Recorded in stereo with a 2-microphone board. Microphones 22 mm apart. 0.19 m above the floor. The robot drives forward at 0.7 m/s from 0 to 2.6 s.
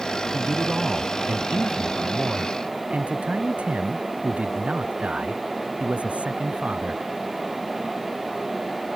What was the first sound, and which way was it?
A man speaking, 85° right.